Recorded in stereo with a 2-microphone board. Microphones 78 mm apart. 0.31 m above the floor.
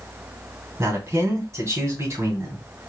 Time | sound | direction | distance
0.8 | a man speaking | 40° right (ahead or behind) | 2.5 m